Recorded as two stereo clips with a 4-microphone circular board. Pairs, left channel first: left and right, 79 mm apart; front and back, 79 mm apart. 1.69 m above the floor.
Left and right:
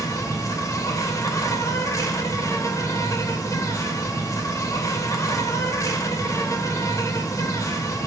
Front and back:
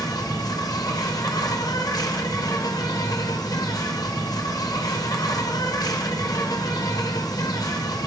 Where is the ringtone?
I don't hear a ringtone.